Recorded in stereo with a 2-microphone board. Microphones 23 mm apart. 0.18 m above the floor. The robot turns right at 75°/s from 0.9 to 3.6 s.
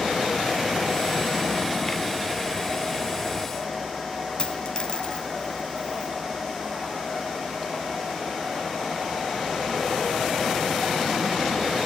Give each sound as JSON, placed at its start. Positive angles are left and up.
{"t": 4.4, "sound": "a dropped coin", "side_deg": 40, "distance_m": 0.6}